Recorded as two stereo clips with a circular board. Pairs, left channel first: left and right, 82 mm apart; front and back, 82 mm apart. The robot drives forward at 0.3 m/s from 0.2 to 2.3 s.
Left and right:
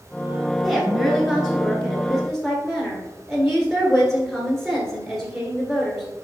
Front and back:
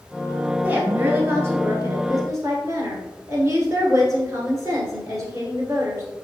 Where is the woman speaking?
Straight behind, 1.1 m.